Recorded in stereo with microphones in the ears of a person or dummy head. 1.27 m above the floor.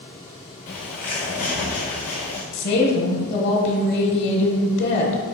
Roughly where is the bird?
Left.